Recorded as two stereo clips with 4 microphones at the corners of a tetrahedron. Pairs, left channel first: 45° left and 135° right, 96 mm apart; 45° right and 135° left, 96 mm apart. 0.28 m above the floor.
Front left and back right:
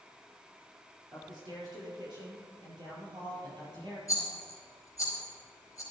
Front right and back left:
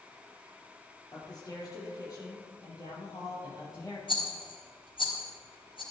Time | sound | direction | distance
1.1 | a man speaking | 95° right | 5 m
4.1 | a rattle | 10° right | 4.5 m